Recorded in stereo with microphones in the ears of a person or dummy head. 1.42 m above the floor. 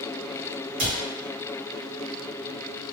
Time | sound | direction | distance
0.8 | a cupboard door | 40° right (ahead or behind) | 1.0 m